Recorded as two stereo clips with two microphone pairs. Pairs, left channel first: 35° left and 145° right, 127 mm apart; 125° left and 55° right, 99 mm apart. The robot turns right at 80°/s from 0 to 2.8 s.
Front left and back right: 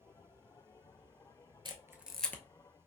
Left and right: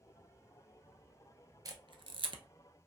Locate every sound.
1.6 s a camera shutter: 100° right, 0.6 m; by 2.4 s 35° right, 0.6 m